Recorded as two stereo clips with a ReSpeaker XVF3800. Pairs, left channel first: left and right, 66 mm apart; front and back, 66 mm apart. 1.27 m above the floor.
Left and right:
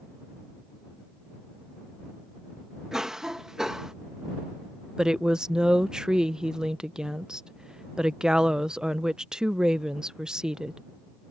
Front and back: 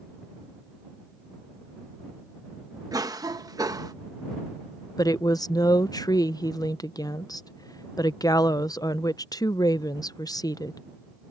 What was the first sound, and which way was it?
A cough, 170° right.